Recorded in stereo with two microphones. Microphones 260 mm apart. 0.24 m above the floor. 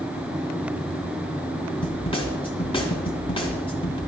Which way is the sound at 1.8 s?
20° left (ahead or behind).